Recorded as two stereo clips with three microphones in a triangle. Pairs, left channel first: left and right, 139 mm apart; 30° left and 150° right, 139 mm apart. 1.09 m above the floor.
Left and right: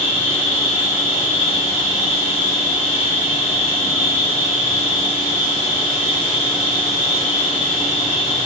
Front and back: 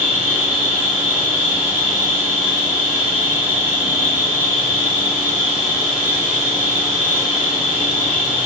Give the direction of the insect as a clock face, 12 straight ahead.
8 o'clock.